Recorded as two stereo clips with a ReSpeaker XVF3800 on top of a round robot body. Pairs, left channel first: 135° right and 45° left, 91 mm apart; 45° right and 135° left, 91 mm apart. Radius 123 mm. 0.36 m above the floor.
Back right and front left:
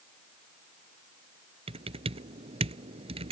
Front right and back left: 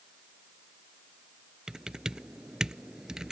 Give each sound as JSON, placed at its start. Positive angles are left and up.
{"t": 1.7, "sound": "typing on a keyboard", "azimuth_deg": 50}